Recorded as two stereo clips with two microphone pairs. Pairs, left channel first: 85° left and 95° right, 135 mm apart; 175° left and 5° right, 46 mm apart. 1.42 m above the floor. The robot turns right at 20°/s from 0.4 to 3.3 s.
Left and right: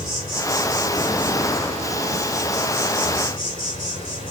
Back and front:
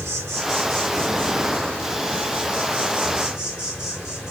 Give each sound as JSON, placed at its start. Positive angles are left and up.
{"t": 0.0, "sound": "an insect", "azimuth_deg": 15, "distance_m": 3.5}